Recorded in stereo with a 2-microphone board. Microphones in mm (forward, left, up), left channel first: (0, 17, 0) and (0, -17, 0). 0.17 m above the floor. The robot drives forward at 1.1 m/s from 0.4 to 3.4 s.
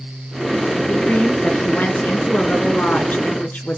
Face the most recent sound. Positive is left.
turn(degrees=50)  # may be behind; listen again after turning